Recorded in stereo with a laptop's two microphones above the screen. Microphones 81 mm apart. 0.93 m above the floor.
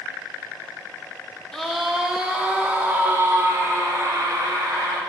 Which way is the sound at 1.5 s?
5° left (ahead or behind).